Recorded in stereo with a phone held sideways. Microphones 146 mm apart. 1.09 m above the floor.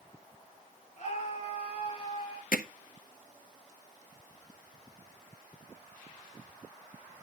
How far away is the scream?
About 7.5 m.